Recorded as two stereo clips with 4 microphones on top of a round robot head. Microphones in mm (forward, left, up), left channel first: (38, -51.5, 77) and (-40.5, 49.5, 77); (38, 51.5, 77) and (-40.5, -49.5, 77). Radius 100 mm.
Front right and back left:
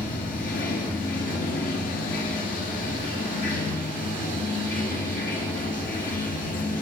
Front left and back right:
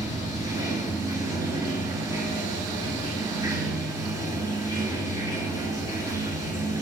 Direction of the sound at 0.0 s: 60° right.